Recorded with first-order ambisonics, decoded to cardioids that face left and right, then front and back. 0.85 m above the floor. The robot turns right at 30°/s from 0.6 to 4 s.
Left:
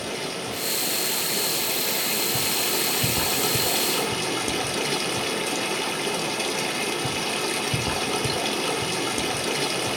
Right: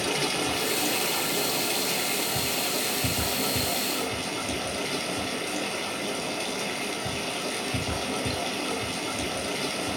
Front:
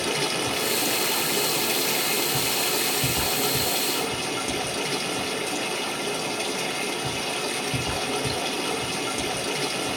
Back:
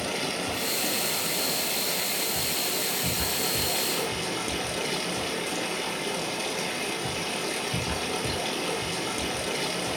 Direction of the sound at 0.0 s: 20° right.